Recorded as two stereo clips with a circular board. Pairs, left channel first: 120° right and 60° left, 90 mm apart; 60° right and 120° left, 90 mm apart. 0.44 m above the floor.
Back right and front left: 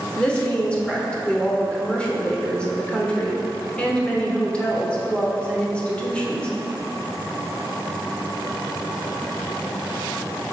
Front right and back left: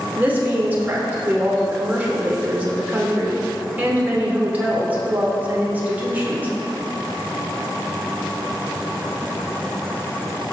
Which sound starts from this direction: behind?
A woman speaking, at 0.2 s.